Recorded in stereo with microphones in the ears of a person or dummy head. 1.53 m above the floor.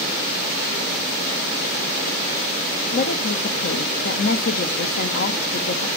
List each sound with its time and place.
2.9 s a woman speaking: 50° left (ahead or behind), 0.6 m